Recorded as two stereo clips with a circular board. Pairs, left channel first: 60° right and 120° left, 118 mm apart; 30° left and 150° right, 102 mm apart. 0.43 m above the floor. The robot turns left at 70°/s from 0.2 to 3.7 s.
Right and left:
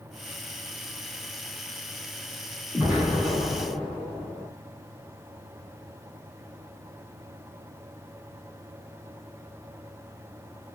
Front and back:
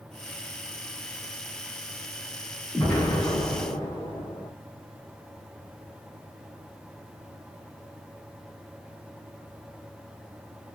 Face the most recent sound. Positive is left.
turn(degrees=10)